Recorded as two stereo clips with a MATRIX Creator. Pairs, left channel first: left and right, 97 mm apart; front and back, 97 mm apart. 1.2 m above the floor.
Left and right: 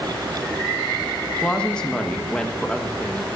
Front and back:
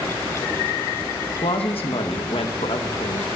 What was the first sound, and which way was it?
A woman speaking, 10° left.